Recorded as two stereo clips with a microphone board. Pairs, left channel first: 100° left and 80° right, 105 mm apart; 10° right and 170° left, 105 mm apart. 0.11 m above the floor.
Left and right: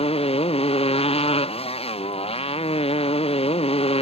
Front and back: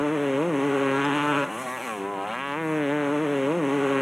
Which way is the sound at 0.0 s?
80° left.